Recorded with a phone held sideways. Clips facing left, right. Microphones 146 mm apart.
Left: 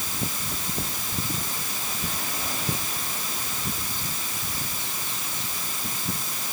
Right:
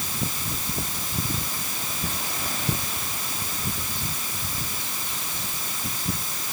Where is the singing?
I don't hear singing.